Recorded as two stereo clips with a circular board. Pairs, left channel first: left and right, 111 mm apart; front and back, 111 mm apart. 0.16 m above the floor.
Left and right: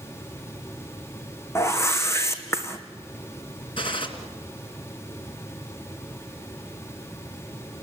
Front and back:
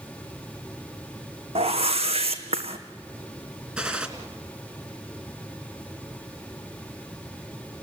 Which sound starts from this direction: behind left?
A whoosh, at 1.6 s.